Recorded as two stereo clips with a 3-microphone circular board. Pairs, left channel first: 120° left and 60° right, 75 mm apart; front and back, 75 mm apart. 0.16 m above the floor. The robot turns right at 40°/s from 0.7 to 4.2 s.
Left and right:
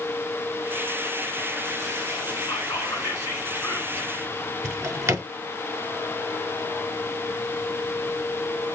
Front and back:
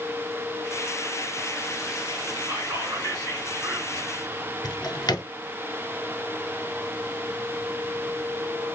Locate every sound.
2.5 s whispering: 130° left, 2.5 m; by 4.1 s 165° right, 2.5 m
4.6 s a drawer: 15° right, 0.9 m